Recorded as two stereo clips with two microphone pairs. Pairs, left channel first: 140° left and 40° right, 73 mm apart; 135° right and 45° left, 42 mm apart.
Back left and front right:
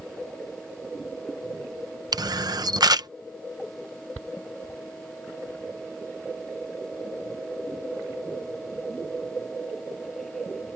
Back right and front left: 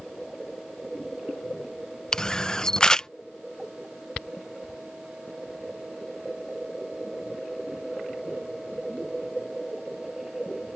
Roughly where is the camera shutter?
Ahead right.